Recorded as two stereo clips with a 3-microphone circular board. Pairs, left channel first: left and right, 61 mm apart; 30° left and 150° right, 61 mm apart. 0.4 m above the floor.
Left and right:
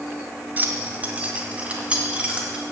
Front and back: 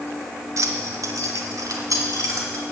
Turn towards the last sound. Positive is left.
turn(degrees=-160)